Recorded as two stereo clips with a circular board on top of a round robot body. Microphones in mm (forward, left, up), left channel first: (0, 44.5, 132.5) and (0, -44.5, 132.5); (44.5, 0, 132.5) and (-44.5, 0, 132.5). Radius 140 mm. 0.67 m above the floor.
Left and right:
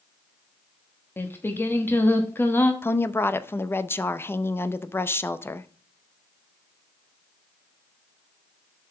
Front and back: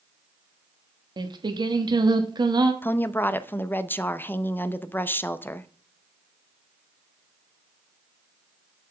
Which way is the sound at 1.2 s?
155° left.